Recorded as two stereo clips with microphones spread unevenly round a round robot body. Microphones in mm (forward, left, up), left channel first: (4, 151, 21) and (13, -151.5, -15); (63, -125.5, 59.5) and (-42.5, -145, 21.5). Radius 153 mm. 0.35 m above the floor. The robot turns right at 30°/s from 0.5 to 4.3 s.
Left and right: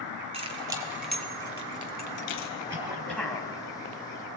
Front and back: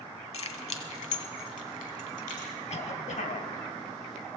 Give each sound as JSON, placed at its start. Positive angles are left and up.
{"t": 0.3, "sound": "keys jangling", "azimuth_deg": -15, "distance_m": 2.0}
{"t": 2.7, "sound": "a cough", "azimuth_deg": -10, "distance_m": 3.0}